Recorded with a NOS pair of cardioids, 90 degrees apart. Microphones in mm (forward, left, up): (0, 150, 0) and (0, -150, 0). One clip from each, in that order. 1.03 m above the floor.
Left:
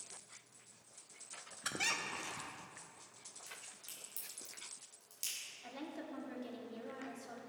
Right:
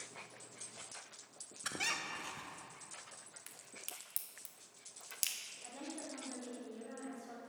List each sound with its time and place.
1.6 s a squeak: straight ahead, 0.7 m
3.5 s a crack: 60° right, 1.5 m
5.6 s a woman speaking: 30° left, 2 m